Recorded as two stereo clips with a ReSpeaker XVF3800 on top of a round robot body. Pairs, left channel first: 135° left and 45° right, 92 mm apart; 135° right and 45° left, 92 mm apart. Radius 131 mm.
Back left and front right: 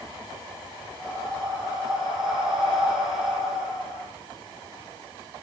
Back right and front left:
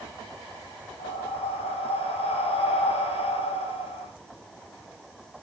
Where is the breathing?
130° right, 7 m.